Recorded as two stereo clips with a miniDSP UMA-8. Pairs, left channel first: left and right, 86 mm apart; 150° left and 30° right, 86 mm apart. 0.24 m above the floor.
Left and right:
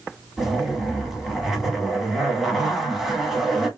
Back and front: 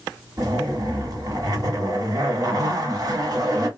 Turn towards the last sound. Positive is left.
turn(degrees=-5)